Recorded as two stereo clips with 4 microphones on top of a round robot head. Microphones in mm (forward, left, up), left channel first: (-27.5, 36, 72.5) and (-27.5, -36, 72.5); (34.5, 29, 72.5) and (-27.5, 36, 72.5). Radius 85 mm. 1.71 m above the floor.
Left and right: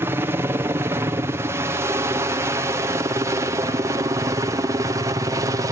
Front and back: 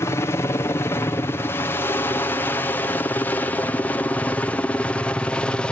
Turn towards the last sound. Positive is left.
turn(degrees=-75)